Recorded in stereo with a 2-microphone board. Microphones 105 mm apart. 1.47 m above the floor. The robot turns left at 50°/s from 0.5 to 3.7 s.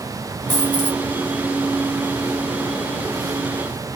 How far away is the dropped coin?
About 1.9 m.